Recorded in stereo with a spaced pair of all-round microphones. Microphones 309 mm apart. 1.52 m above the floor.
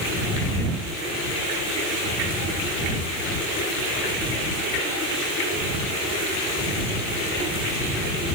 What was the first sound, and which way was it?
Only background noise.